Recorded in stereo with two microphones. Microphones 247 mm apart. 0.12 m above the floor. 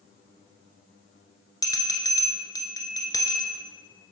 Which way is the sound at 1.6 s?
15° left (ahead or behind).